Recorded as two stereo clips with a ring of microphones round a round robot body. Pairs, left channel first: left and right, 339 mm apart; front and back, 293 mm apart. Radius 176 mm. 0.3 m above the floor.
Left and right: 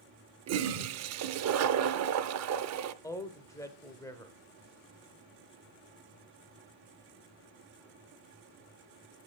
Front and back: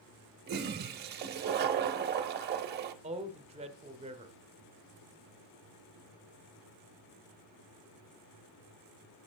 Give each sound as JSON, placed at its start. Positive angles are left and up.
{"t": 0.5, "sound": "a toilet flushing", "azimuth_deg": -130, "distance_m": 0.5}
{"t": 3.0, "sound": "a man speaking", "azimuth_deg": 155, "distance_m": 0.9}